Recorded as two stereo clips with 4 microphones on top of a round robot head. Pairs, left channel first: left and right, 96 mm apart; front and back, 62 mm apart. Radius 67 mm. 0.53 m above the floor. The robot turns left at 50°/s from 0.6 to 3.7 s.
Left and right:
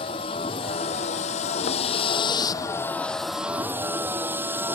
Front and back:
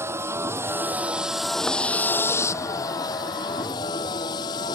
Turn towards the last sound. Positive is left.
turn(degrees=-20)